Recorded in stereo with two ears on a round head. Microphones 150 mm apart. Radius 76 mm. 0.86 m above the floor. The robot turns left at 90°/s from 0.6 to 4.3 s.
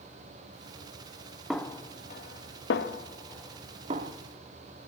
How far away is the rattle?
I don't hear a rattle.